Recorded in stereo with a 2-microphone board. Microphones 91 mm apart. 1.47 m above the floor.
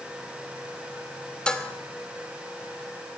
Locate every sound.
1.5 s dishes clattering: 10° left (ahead or behind), 3 m